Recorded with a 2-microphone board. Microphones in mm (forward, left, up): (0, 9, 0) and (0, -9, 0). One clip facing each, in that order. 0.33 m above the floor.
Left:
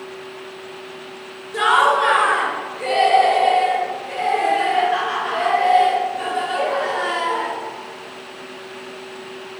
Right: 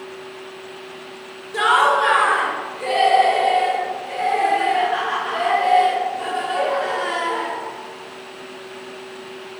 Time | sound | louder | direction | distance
1.5 | laughter | even | centre (ahead or behind) | 1.6 m